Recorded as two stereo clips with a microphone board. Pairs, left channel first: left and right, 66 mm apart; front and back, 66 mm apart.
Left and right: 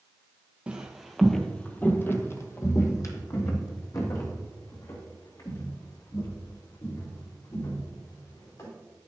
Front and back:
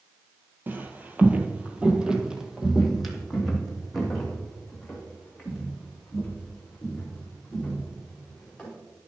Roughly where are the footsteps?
Behind right.